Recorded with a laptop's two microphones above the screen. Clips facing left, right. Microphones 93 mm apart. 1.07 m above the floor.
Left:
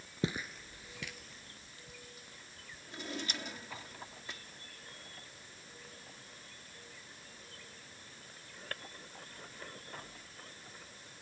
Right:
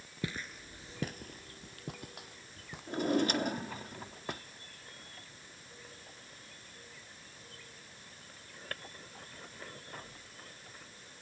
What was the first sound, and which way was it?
Footsteps, 25° left (ahead or behind).